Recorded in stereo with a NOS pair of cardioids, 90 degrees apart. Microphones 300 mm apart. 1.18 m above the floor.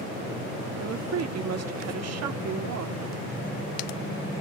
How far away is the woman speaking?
About 1.6 m.